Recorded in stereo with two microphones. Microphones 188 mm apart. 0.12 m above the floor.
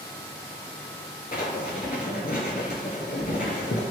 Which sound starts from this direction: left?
Writing, at 1.3 s.